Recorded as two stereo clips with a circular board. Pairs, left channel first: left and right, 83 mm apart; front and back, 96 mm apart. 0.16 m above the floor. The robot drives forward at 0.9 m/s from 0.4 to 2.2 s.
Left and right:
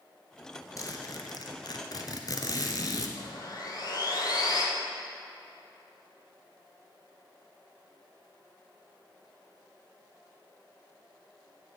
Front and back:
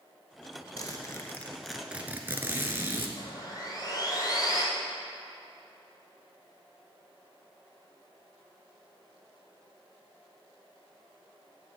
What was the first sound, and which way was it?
A zipper, 45° left.